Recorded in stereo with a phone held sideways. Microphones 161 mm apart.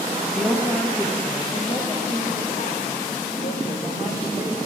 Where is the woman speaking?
5° left (ahead or behind), 1.6 m; by 4.6 s 70° left (ahead or behind), 2.5 m.